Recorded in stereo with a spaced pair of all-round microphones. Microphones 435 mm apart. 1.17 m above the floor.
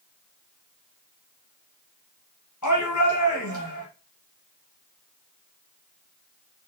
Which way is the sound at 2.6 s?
40° left (ahead or behind).